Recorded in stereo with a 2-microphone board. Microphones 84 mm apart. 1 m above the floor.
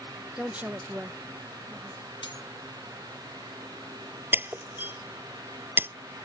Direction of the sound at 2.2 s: 75° left (ahead or behind).